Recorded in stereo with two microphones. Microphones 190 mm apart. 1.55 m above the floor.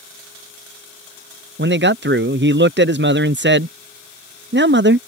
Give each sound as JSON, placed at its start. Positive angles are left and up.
{"t": 1.6, "sound": "a man speaking", "side_deg": -65}